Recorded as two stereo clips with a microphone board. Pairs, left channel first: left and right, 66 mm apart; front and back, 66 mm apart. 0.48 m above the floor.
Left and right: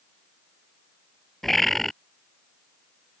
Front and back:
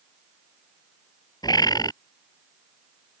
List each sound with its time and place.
1.4 s a bird: 5° left